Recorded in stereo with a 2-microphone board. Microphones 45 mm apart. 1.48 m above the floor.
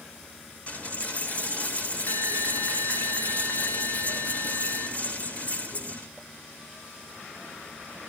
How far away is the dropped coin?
About 2.5 m.